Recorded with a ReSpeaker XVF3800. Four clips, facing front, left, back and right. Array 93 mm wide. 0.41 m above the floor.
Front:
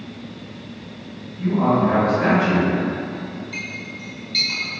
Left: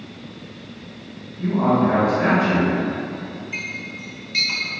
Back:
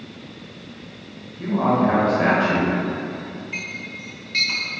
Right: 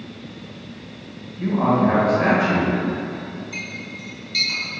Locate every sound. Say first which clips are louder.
1.4 s a man speaking: even, front 1 dB; 115° right, 1.4 m; by 2.7 s 170° right, 1.4 m
3.5 s a clink: left 2 dB, front 1 dB; 145° left, 0.7 m